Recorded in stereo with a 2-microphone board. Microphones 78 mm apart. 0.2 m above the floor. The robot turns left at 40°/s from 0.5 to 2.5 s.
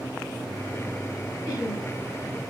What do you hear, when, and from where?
1.5 s laughter: 45° left (ahead or behind), 2 m; by 1.9 s 40° left (ahead or behind), 2 m